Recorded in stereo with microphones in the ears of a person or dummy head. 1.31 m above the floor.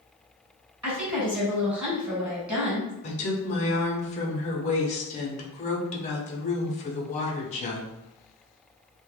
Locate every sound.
0.8 s a woman speaking: 5° right (ahead or behind), 1.2 m
3.0 s a woman speaking: 30° left (ahead or behind), 0.5 m